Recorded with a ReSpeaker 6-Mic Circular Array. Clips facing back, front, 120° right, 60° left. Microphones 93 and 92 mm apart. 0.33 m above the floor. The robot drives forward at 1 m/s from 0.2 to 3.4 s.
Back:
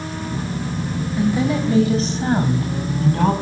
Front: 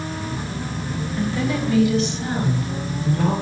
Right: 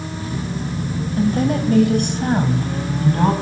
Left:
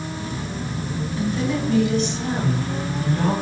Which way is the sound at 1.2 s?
105° right.